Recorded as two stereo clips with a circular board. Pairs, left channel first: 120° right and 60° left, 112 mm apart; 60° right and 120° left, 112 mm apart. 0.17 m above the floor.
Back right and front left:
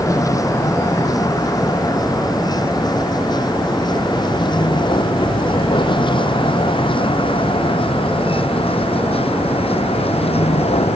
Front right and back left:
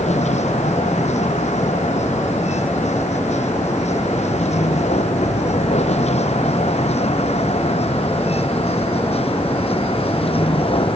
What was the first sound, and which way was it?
A vehicle, 60° right.